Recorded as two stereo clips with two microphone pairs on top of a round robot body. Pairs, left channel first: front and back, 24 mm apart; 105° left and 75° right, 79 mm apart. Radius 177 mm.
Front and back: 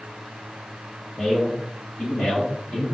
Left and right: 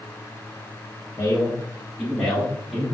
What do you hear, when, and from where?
1.2 s a man speaking: 55° left, 2 m; by 2.9 s 10° left, 3 m